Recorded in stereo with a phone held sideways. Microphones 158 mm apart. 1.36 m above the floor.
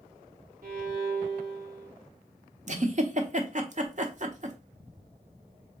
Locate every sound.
0.6 s a violin: 65° right (ahead or behind), 0.9 m
2.7 s a giggle: 50° right (ahead or behind), 0.6 m